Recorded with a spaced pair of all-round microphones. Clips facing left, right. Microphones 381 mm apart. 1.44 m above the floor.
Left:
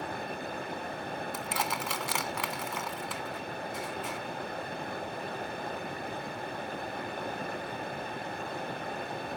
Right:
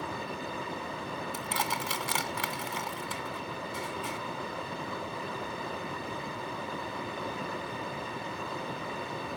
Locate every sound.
0.0 s running water: 5° right (ahead or behind)
1.3 s crushing: 30° right (ahead or behind)